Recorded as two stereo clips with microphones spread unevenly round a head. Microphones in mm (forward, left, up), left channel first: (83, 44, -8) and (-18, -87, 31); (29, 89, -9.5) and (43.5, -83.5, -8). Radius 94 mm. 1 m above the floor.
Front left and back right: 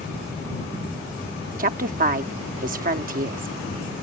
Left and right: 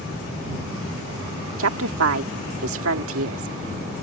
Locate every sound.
1.6 s a woman speaking: 85° right